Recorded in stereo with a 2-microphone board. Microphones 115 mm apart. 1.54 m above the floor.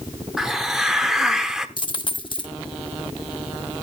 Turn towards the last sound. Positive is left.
turn(degrees=45)  # may be behind; listen again after turning